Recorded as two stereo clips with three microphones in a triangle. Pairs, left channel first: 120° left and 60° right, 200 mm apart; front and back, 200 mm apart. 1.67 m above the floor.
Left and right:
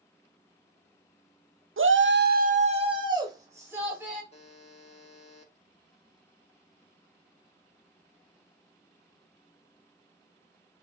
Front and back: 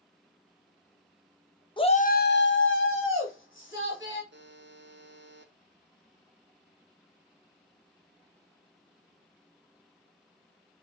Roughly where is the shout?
Ahead right.